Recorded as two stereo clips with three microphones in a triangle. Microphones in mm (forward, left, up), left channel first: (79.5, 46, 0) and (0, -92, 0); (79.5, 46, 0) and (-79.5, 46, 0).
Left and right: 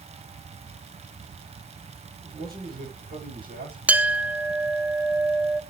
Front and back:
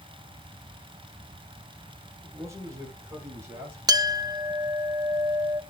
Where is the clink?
175° left, 0.6 m.